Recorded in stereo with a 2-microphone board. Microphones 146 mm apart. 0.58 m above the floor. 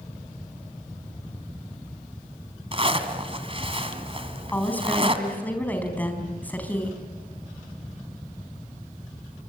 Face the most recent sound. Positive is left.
turn(degrees=10)  # may be behind; listen again after turning